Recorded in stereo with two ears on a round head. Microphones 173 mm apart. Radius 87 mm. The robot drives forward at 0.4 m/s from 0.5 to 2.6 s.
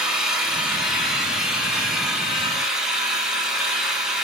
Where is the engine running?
5° right (ahead or behind), 3 m.